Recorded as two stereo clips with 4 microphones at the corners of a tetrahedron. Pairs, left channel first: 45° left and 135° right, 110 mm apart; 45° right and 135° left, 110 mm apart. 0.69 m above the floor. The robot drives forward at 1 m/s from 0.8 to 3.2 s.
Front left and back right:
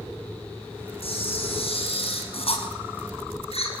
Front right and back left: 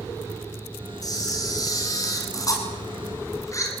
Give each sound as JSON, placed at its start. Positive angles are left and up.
{"t": 1.0, "sound": "a camera shutter", "azimuth_deg": 10, "distance_m": 7.5}